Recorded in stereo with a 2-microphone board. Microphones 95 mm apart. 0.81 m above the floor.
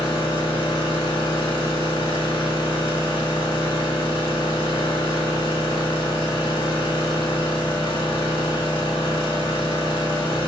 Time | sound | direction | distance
0.0 | an engine running | 60° left (ahead or behind) | 0.9 m